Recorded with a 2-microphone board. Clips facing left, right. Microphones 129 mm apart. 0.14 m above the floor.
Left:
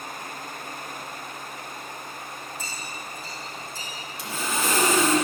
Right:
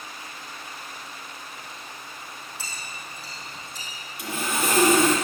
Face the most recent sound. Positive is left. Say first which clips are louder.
# right 1 dB
turn(degrees=-60)  # may be behind; listen again after turning